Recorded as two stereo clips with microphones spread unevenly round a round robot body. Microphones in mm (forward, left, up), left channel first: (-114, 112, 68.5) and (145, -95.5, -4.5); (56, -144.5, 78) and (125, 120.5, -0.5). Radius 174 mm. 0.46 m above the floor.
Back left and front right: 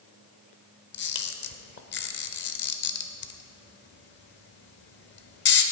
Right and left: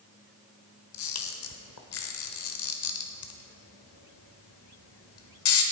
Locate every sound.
0.9 s a camera shutter: 155° right, 1.0 m